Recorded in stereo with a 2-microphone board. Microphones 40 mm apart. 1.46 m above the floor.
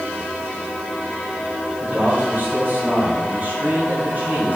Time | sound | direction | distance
1.8 | a man speaking | 50° right (ahead or behind) | 4 m